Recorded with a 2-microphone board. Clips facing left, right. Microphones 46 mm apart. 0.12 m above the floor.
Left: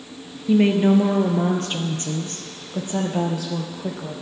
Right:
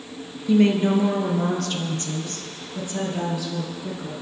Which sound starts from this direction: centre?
A woman speaking, at 0.5 s.